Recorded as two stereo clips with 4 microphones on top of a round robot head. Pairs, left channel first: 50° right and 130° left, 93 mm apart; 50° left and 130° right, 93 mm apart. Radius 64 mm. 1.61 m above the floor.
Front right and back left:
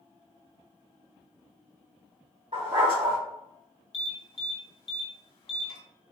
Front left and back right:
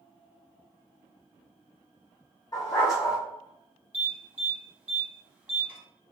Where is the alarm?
55° right, 1.5 m.